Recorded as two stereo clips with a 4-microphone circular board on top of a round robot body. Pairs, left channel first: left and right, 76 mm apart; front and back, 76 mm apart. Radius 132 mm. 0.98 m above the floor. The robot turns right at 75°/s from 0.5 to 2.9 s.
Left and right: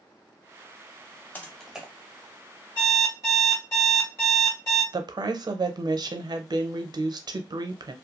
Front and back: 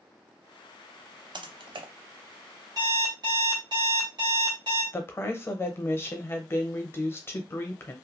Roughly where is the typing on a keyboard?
Behind left.